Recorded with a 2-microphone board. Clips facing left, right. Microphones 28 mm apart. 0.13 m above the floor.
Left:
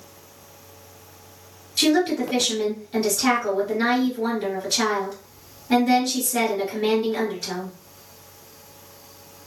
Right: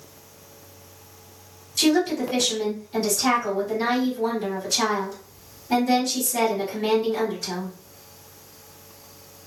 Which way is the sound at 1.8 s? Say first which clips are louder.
Left 1 dB; 40° left (ahead or behind).